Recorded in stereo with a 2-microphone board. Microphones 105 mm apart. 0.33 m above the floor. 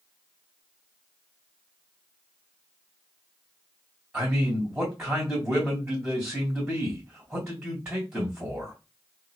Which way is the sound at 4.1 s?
10° right (ahead or behind).